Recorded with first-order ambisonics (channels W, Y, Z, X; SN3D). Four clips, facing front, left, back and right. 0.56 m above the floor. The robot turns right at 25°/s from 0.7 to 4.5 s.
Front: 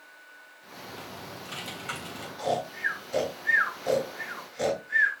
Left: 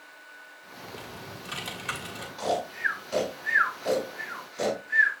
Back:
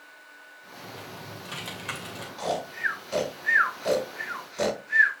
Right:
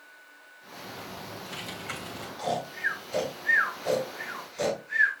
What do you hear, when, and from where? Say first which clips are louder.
0.8 s typing on a keyboard: right 1 dB, even; 100° left, 2.5 m; by 2.3 s 140° left, 2.5 m
2.4 s snoring: left 2 dB, even; 140° left, 6 m; by 5.1 s 165° right, 6 m